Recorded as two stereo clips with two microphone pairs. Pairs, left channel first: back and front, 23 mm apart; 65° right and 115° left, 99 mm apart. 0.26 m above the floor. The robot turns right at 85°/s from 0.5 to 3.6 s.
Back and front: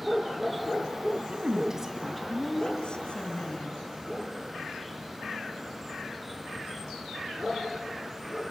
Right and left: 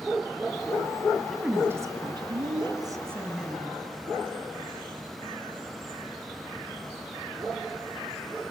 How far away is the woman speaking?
About 2 m.